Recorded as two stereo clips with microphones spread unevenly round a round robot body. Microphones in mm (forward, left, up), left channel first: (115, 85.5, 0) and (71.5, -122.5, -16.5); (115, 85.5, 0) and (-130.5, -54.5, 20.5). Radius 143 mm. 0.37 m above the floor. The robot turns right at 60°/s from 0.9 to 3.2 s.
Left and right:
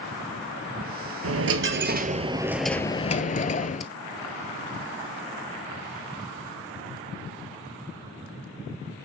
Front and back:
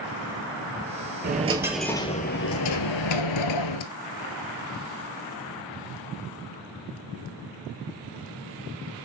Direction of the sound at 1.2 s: 95° right.